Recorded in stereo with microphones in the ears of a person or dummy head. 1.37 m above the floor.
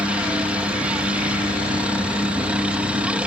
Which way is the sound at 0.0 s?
5° right (ahead or behind).